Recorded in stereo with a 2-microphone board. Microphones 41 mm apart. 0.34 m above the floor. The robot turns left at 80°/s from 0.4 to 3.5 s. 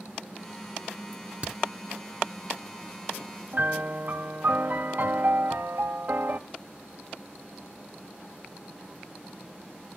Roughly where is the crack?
Right.